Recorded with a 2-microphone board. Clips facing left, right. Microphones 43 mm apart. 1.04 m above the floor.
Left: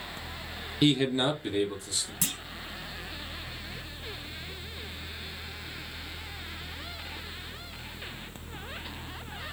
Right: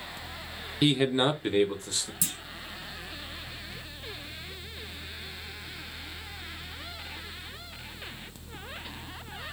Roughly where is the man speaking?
Centre.